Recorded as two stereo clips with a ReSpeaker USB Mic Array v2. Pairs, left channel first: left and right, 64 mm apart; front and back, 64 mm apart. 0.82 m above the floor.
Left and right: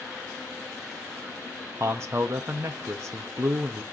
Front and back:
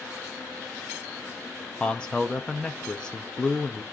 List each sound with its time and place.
1.8 s a man speaking: 70° right, 0.7 m